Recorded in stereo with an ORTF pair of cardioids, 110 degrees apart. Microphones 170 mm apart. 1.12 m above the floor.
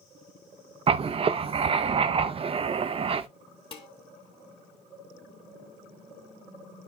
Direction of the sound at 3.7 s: 30° left.